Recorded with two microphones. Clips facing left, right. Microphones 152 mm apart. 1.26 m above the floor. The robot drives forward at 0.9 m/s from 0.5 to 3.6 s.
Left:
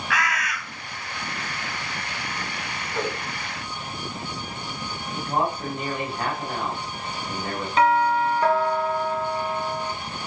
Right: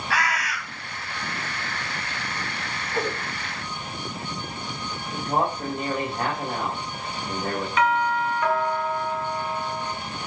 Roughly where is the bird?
Right.